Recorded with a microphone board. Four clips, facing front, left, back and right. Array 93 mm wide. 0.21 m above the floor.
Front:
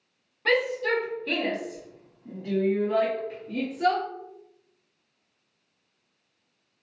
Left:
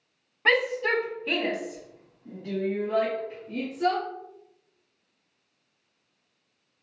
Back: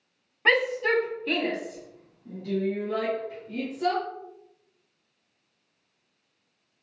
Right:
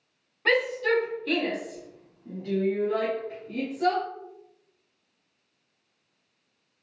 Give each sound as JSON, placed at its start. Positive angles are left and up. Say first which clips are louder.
{"t": 0.5, "sound": "a shout", "louder": "even, back 1 dB", "azimuth_deg": 140, "distance_m": 1.4}